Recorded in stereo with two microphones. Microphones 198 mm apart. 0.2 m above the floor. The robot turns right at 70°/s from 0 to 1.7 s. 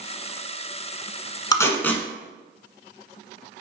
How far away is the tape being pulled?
About 1.1 m.